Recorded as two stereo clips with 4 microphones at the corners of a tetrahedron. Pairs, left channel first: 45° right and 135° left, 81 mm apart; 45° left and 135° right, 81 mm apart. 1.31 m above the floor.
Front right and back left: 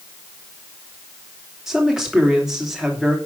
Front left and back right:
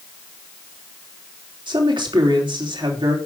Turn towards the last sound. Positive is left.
turn(degrees=-140)